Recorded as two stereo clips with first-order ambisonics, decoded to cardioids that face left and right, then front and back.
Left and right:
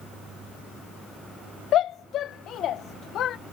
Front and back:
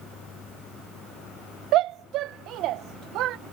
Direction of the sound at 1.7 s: 140° left.